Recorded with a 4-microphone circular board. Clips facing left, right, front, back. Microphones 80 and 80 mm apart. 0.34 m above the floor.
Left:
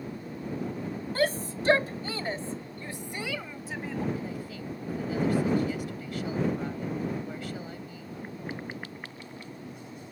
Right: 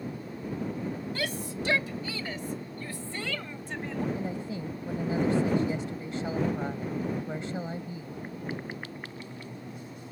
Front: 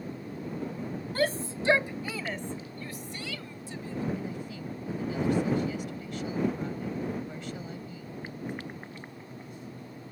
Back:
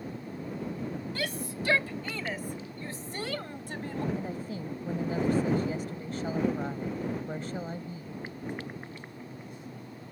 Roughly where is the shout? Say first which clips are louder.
Left 5 dB, front 6 dB; ahead left.